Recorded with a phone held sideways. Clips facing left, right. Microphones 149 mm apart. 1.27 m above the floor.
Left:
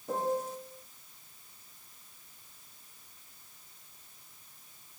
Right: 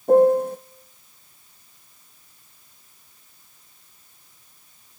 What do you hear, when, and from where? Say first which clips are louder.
0.1 s a piano: right 17 dB; 60° right (ahead or behind), 0.9 m